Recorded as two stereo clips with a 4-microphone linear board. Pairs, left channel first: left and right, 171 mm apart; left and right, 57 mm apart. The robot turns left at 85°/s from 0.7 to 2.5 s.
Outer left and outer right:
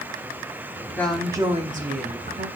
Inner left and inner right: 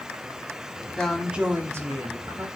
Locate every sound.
1.0 s a woman speaking: 15° left, 2.5 m; by 2.5 s 115° right, 2.5 m